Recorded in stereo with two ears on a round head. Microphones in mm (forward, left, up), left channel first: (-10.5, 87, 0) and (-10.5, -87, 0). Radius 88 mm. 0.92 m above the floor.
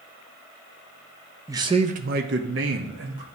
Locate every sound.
1.5 s a man speaking: 15° right (ahead or behind), 0.7 m; by 3.2 s 65° right (ahead or behind), 1.3 m